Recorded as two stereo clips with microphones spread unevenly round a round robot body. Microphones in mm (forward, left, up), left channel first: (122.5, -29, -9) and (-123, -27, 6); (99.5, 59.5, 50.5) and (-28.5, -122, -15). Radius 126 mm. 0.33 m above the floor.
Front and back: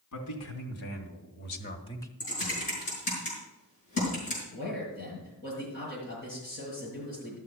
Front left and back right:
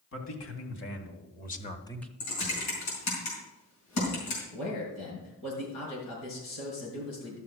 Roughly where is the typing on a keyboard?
Ahead left.